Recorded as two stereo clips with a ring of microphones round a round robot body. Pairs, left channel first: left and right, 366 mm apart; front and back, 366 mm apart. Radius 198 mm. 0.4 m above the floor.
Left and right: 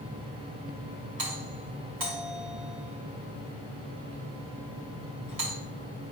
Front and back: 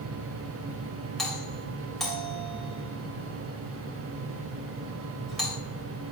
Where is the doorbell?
90° right, 3 m.